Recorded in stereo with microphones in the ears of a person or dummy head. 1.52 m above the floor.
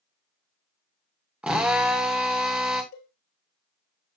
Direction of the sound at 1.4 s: 5° right (ahead or behind).